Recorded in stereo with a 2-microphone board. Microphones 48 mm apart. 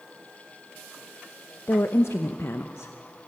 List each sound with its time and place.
1.7 s a woman speaking: 65° left (ahead or behind), 0.7 m